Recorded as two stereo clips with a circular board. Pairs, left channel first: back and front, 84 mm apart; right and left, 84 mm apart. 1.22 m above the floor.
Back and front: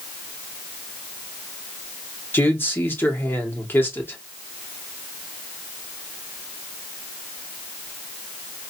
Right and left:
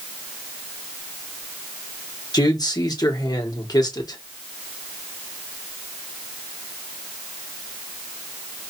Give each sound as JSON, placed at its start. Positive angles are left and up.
{"t": 2.3, "sound": "a man speaking", "azimuth_deg": -120, "distance_m": 1.2}